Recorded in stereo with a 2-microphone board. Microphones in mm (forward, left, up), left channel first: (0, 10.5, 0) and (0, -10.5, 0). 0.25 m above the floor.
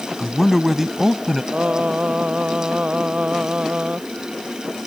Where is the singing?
75° right (ahead or behind).